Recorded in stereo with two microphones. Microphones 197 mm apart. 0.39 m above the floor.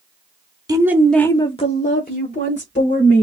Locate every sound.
0.7 s a woman speaking: 20° right (ahead or behind), 0.9 m; by 3.2 s 65° left (ahead or behind), 1.9 m